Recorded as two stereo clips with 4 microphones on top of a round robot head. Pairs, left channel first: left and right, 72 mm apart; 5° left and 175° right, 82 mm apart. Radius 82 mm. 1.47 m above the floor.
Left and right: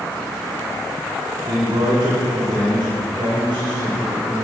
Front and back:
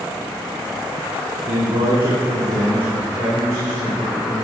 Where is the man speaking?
140° right, 1.2 m; by 4.5 s 160° right, 3 m.